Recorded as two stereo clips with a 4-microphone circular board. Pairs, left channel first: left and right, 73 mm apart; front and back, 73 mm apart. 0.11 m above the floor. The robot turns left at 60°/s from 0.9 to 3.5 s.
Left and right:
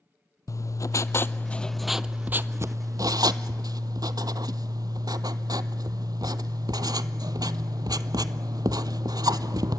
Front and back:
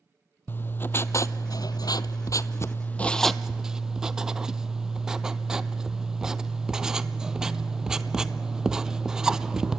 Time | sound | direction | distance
0.5 | writing | 55° left | 0.6 m